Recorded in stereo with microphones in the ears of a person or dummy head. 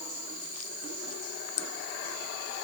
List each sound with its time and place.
Only background noise.